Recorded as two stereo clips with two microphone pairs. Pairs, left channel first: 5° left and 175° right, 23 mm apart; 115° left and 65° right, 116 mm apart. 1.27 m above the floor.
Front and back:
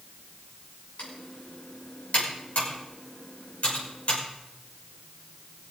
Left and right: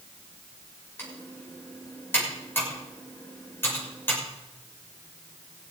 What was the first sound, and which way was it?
Typing on a keyboard, 45° left.